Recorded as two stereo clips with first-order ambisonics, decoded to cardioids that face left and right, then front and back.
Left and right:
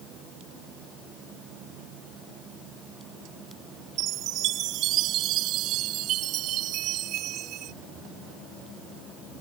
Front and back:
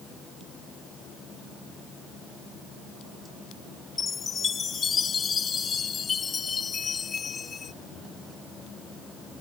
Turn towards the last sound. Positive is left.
turn(degrees=-65)